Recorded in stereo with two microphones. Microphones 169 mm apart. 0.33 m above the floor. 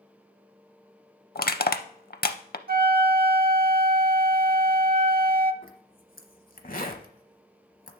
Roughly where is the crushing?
Left.